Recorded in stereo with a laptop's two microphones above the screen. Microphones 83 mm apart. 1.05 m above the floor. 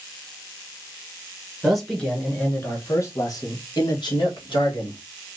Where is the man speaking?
5° right (ahead or behind), 1.0 m; by 5.0 s 70° left (ahead or behind), 1.7 m.